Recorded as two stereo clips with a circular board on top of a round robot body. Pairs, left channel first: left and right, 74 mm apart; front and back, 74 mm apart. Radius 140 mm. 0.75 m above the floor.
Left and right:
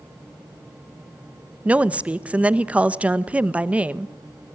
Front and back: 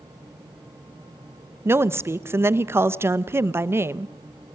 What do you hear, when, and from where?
1.6 s a woman speaking: 150° right, 1.2 m